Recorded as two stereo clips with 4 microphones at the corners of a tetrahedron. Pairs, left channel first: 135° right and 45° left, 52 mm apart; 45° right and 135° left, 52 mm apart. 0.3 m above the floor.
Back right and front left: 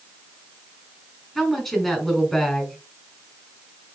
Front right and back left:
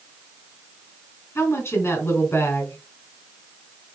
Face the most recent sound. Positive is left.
turn(degrees=-55)